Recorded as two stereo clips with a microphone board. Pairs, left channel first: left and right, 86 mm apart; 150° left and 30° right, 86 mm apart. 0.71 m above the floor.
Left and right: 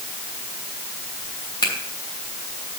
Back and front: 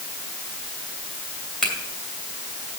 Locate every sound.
1.6 s a finger snap: 65° left, 3 m